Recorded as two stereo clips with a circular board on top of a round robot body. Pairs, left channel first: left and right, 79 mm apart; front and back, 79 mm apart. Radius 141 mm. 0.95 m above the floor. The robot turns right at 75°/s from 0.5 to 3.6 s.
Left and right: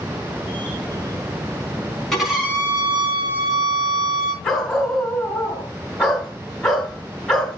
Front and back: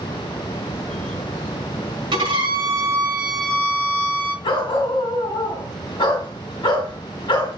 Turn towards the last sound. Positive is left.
turn(degrees=5)